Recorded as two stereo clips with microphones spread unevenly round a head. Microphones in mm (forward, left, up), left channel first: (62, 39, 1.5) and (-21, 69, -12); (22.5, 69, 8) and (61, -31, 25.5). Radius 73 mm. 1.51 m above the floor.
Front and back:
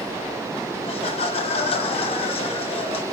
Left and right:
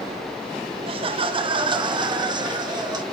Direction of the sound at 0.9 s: 35° right.